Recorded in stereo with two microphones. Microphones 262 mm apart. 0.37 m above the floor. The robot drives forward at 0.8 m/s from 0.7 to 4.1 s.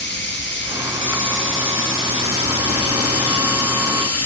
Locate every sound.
0.0 s running water: 45° left (ahead or behind), 5 m; by 4.3 s 75° left (ahead or behind), 4 m